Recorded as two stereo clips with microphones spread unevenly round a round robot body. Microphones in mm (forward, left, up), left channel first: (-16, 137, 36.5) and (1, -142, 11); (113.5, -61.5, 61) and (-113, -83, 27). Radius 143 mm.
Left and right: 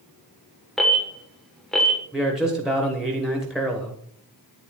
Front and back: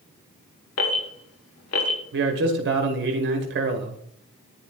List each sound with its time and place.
0.8 s an alarm: 5° left, 1.4 m
2.1 s a man speaking: 170° right, 1.1 m